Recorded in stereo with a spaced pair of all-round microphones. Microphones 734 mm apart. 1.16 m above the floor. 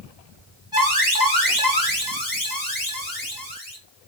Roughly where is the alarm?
Left.